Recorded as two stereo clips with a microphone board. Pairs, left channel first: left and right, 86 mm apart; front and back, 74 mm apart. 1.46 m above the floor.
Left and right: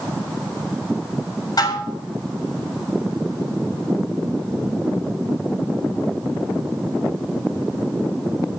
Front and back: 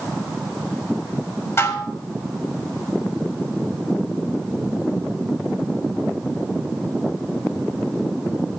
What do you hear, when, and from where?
1.6 s dishes clattering: 50° left, 3.5 m